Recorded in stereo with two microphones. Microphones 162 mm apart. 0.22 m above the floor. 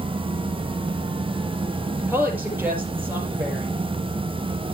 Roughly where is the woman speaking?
Centre.